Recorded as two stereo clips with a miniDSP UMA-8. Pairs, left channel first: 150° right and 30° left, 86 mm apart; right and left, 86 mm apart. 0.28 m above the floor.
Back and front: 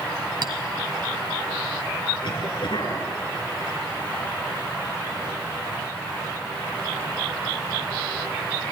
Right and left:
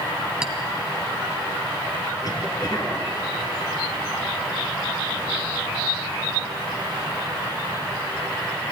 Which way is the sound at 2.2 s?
135° right.